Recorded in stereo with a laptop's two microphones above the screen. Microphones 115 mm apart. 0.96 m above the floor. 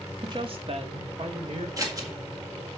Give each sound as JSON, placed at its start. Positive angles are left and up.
{"t": 0.2, "sound": "a woman speaking", "side_deg": -40, "distance_m": 1.5}
{"t": 1.8, "sound": "scissors", "side_deg": -30, "distance_m": 1.7}